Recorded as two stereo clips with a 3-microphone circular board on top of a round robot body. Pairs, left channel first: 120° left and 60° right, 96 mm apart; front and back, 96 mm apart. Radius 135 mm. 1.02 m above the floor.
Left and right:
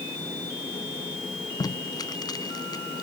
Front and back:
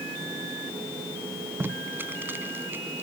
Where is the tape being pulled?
120° left, 0.8 m.